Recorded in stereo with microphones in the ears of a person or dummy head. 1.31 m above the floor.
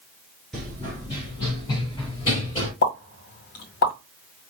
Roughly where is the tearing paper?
I don't hear tearing paper.